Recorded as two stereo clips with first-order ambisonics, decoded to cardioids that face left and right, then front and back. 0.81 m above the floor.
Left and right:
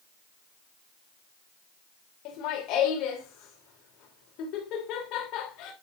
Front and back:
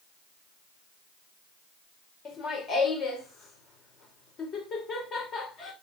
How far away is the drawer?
I don't hear a drawer.